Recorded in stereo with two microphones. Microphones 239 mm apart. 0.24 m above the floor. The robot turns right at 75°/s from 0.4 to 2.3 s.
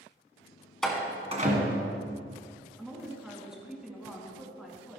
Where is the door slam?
5° left (ahead or behind), 1.7 m; by 1.9 s 55° right (ahead or behind), 1.7 m.